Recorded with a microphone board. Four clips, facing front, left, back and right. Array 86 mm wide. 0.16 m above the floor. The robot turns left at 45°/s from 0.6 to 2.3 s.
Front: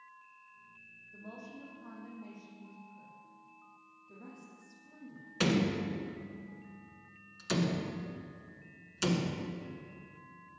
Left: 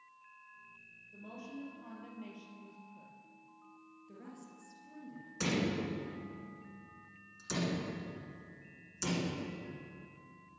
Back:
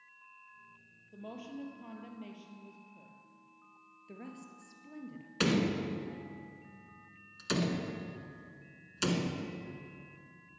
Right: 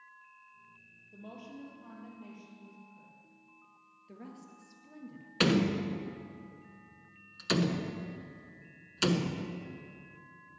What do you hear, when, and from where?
1.1 s a woman speaking: 155° right, 3 m; by 3.1 s 150° left, 3 m
4.1 s a woman speaking: 160° right, 2.5 m
5.4 s a door slam: 100° right, 1.4 m